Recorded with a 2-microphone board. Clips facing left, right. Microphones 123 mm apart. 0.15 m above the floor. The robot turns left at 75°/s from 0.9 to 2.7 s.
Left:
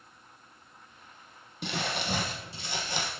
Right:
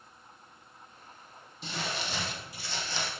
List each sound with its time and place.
1.6 s crumpling: 100° left, 1.6 m; by 3.1 s 15° left, 1.6 m